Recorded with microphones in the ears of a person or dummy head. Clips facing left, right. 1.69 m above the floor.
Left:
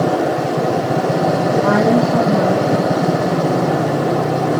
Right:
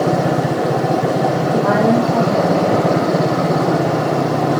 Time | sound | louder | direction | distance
1.5 | a woman speaking | even | 30° left (ahead or behind) | 3.5 m